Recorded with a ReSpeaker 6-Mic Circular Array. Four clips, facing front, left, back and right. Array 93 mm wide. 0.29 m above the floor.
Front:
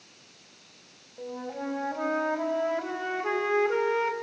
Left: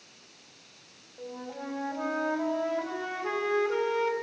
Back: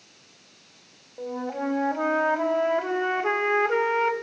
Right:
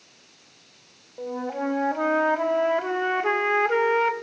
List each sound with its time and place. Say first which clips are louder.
1.2 s a flute: right 10 dB, back 5 dB; 120° right, 1.2 m